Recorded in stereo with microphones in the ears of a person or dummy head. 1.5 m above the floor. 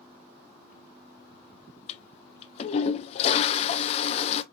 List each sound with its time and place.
1.9 s a toilet flushing: 35° left (ahead or behind), 0.5 m